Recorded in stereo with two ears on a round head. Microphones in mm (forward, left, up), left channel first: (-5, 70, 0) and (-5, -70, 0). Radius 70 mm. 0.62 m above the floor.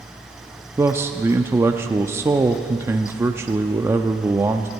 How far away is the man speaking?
About 0.5 m.